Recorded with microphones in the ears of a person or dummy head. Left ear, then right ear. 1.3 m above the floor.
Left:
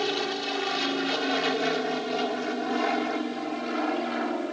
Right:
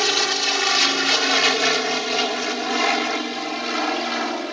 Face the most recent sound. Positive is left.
turn(degrees=-65)  # may be behind; listen again after turning